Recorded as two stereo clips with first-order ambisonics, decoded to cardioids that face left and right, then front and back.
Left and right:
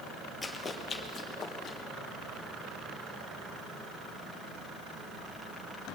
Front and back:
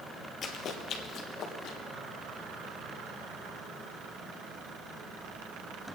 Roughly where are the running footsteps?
Ahead left.